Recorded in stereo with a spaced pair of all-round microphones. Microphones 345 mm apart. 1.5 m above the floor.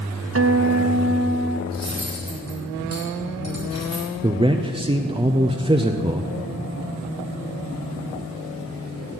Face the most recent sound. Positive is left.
turn(degrees=-15)  # may be behind; listen again after turning